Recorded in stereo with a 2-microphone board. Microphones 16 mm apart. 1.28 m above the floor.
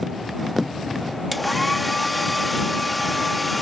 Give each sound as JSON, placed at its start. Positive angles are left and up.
{"t": 1.3, "sound": "a hair dryer", "side_deg": 0}